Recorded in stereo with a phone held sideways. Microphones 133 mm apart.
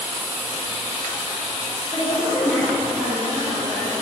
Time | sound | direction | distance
1.9 | a woman speaking | 45° left (ahead or behind) | 1.3 m